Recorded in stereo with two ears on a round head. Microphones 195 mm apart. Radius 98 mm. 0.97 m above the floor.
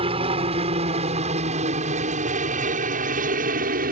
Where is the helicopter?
25° right (ahead or behind); by 3.9 s 40° right (ahead or behind).